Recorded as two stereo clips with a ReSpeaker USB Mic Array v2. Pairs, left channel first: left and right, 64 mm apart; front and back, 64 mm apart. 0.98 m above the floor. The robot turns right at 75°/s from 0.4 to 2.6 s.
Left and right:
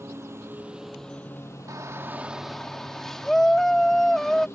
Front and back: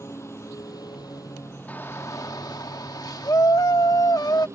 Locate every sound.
0.0 s a lawn mower: 45° right; by 4.6 s 135° left
1.7 s a shout: 65° right; by 4.5 s 5° left